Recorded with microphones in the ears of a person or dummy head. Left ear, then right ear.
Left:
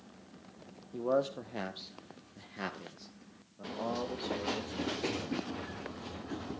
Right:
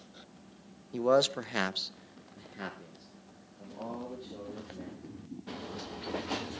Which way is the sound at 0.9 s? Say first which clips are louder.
Right 5 dB; 70° right (ahead or behind).